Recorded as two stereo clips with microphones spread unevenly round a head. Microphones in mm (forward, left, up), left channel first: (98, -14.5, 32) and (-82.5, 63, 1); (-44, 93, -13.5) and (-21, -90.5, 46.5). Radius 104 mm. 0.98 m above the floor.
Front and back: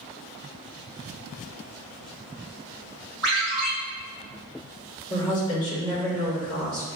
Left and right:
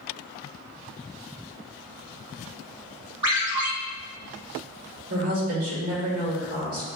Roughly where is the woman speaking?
Right.